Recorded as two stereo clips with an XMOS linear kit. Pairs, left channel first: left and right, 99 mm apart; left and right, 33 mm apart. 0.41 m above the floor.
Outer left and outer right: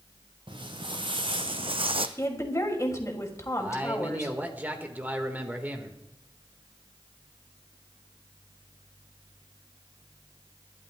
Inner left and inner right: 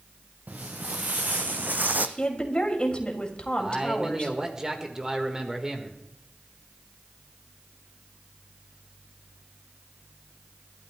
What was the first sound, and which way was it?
Footsteps, 55° right (ahead or behind).